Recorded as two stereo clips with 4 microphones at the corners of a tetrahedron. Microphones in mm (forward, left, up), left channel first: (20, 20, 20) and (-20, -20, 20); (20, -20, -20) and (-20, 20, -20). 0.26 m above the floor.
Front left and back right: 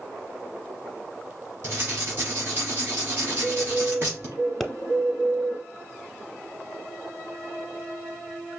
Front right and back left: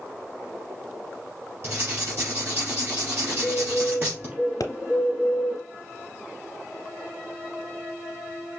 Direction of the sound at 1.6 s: Straight behind.